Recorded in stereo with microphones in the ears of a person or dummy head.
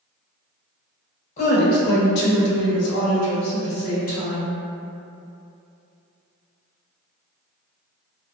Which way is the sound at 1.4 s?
45° left (ahead or behind).